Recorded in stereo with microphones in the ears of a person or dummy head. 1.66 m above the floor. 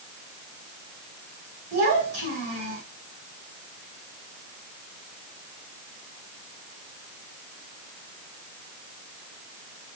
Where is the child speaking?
60° right (ahead or behind), 3.5 m.